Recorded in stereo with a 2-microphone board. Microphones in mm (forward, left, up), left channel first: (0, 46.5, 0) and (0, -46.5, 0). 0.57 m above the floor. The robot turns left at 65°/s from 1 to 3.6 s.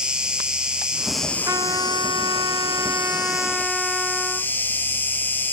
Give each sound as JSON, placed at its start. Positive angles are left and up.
{"t": 0.0, "sound": "an insect", "azimuth_deg": -170, "distance_m": 2.0}
{"t": 1.5, "sound": "a trumpet", "azimuth_deg": -45, "distance_m": 2.0}